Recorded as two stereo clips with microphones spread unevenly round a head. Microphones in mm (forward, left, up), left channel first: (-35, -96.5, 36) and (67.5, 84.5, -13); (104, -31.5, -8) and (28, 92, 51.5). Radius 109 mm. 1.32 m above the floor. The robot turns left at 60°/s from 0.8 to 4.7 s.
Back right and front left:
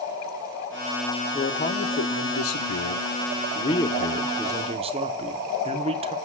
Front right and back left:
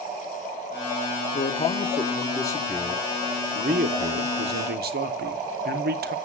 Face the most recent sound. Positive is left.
turn(degrees=110)